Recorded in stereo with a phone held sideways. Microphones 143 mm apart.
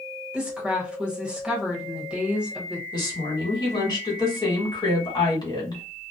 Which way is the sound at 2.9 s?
30° left (ahead or behind).